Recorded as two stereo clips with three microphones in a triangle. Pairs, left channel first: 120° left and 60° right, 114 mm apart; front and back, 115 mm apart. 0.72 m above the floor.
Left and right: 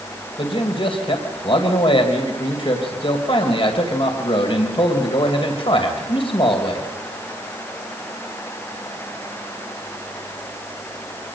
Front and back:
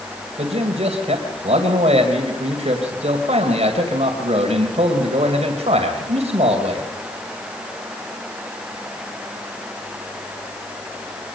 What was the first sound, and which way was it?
A man speaking, 160° left.